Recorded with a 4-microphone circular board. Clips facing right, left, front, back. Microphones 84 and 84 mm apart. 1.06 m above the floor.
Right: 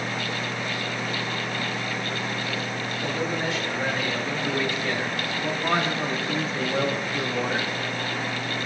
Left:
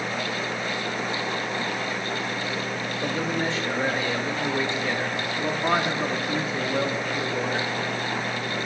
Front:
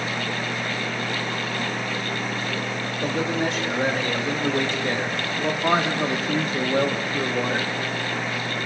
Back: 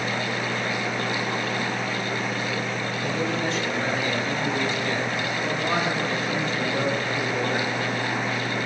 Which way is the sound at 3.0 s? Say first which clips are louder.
Left 1 dB, front 3 dB; 30° left.